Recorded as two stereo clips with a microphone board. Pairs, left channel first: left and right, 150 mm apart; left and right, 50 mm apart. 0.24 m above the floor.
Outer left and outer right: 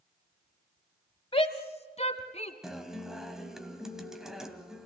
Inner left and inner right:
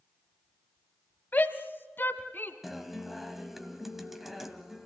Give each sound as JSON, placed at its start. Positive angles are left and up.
{"t": 1.3, "sound": "a shout", "side_deg": 35, "distance_m": 1.3}
{"t": 2.6, "sound": "a guitar", "side_deg": -5, "distance_m": 1.7}